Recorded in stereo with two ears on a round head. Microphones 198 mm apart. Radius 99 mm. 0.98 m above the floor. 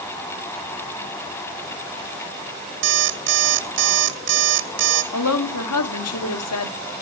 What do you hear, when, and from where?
2.8 s an alarm clock: 60° right (ahead or behind), 0.8 m
5.1 s a woman speaking: 75° left (ahead or behind), 1.9 m